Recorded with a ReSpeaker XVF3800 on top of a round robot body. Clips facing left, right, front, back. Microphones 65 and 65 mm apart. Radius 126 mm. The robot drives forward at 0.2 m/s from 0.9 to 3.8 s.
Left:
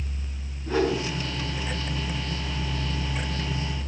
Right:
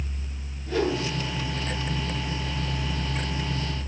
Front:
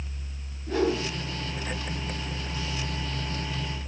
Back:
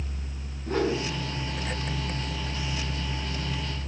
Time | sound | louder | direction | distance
0.7 | a whoosh | left 1 dB, front 1 dB | 135° left | 6.5 m